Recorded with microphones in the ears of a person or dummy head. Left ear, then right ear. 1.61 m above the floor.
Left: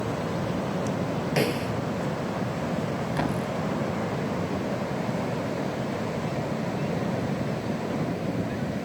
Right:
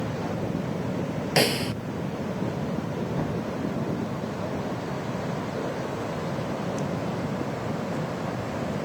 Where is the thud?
65° left (ahead or behind).